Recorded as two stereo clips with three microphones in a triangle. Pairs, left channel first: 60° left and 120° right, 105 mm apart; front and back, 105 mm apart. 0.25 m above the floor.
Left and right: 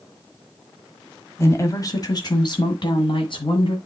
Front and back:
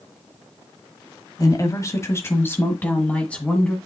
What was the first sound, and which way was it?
A woman speaking, 20° left.